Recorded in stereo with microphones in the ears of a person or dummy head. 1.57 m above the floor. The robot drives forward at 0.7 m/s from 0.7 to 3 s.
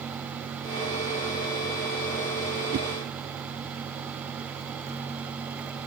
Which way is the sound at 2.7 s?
40° right (ahead or behind).